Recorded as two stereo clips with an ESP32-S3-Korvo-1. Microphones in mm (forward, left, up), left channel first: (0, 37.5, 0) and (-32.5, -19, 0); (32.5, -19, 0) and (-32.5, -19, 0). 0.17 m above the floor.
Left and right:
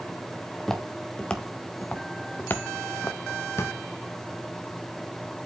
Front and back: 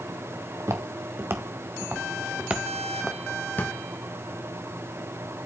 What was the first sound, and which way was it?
Footsteps, 145° left.